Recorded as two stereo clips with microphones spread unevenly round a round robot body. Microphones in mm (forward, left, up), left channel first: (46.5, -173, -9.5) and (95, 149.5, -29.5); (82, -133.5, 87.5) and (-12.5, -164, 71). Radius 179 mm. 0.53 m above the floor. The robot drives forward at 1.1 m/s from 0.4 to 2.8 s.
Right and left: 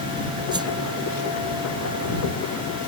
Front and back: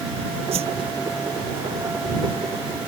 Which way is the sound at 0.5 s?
160° left.